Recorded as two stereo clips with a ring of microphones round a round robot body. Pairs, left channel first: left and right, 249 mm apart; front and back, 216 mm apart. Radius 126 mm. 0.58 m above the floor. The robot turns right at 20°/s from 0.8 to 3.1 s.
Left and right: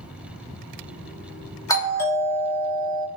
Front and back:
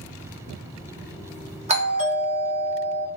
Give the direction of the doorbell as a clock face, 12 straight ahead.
7 o'clock.